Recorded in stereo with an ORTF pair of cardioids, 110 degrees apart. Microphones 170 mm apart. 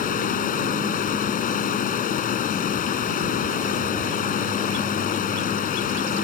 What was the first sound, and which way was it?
Running water, 55° left.